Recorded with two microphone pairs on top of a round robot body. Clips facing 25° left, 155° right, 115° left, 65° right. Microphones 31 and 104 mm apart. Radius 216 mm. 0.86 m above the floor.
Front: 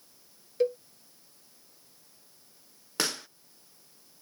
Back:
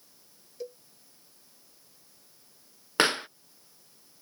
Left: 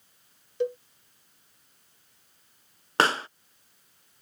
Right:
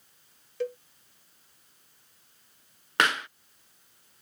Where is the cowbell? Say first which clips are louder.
Front 14 dB, left 4 dB; 45° left.